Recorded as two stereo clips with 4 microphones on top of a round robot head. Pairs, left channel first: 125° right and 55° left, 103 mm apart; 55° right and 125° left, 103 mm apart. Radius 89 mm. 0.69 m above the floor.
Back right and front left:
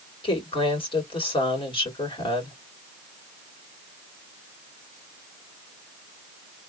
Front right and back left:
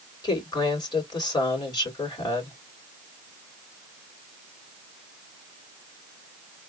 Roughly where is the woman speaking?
Right.